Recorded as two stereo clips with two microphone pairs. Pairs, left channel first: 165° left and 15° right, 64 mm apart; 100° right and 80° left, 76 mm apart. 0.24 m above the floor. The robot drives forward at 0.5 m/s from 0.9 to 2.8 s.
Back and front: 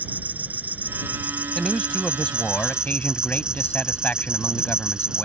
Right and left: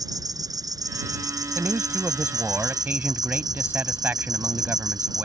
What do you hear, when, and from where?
0.0 s an insect: 45° left; by 5.2 s 60° left
1.6 s a man speaking: 85° left; by 5.2 s 120° left